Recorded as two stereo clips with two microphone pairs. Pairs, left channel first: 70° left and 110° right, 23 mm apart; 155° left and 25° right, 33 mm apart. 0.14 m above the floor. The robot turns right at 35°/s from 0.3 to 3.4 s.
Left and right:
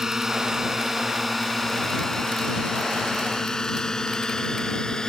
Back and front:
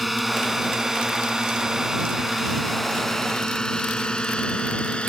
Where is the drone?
110° right; by 5.1 s 115° left.